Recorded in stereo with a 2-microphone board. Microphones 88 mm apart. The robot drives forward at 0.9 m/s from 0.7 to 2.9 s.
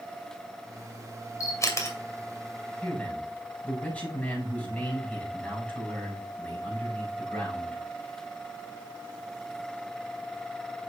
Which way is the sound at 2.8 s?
15° left (ahead or behind).